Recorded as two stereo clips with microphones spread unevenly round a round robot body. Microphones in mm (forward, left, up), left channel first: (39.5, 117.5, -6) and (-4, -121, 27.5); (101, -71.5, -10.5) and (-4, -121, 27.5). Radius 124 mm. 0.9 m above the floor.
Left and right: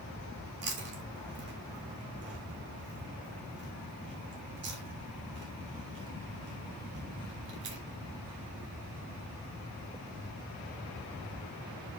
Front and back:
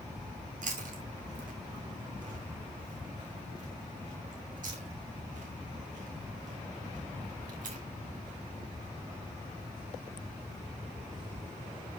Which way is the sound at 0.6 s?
150° right.